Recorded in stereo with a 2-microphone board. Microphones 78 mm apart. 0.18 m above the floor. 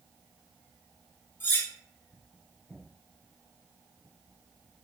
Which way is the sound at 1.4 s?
30° left (ahead or behind).